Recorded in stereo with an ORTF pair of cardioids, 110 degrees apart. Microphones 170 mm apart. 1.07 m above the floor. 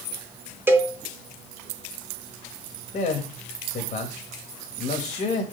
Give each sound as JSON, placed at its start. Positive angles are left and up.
{"t": 0.7, "sound": "a cowbell", "azimuth_deg": -15, "distance_m": 0.9}
{"t": 2.9, "sound": "a man speaking", "azimuth_deg": 45, "distance_m": 1.5}